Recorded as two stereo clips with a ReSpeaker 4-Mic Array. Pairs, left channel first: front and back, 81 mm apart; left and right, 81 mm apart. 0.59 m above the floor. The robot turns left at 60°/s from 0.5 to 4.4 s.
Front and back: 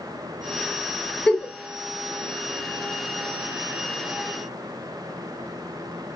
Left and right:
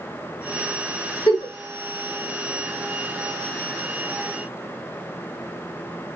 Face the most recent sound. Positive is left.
turn(degrees=-110)